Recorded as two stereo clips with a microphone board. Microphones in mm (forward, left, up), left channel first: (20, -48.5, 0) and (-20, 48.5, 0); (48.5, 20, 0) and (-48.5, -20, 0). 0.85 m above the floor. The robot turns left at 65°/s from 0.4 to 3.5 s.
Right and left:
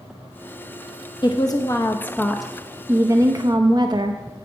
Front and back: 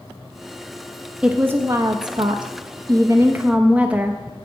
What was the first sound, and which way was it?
A woman speaking, 80° right.